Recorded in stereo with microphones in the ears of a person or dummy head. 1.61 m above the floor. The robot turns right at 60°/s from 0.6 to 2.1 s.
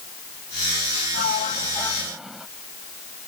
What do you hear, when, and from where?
1.1 s a sliding door: 125° left; by 2.5 s straight behind